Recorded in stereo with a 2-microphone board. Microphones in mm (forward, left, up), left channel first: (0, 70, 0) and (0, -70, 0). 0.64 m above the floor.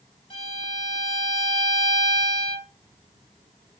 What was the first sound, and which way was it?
A violin, 40° left (ahead or behind).